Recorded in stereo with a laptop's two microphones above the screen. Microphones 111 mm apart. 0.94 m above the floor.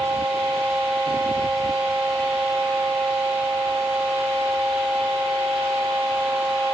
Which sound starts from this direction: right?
A fan, at 0.0 s.